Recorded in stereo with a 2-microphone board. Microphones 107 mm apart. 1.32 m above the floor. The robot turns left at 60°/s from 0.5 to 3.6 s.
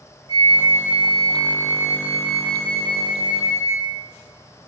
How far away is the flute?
About 2 m.